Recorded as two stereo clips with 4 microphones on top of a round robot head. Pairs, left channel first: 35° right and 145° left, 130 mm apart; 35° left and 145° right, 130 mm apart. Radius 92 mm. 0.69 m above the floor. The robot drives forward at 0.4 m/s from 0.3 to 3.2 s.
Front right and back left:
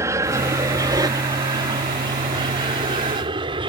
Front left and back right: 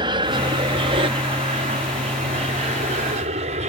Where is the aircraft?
165° right; by 3.7 s 170° right.